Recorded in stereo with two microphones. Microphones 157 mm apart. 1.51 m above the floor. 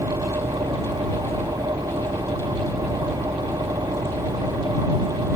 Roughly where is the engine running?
Right.